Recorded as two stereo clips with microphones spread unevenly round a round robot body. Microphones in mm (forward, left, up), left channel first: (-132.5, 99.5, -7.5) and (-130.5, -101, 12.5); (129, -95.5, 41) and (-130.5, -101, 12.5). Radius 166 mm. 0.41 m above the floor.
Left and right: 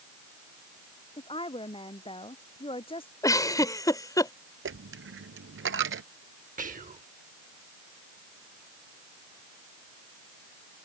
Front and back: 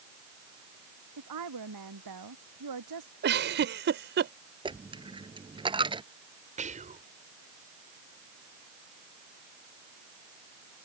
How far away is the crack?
No crack in this recording.